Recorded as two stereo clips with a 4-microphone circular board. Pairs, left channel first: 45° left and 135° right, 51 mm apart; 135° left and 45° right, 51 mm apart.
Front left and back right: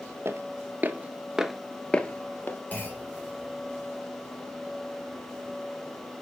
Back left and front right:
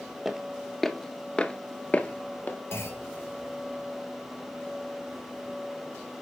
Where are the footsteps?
125° right, 1.3 m; by 2.6 s 85° left, 1.4 m.